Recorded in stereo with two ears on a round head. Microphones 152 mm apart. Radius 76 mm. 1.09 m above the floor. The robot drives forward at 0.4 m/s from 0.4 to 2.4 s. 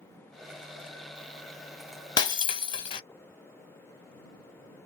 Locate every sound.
2.2 s breaking glass: 25° left (ahead or behind), 0.6 m; by 3.0 s 30° left (ahead or behind), 0.5 m